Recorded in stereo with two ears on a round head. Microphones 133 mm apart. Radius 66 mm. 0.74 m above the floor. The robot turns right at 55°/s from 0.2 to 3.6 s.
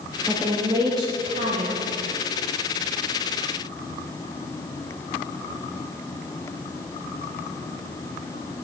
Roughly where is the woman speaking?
Behind.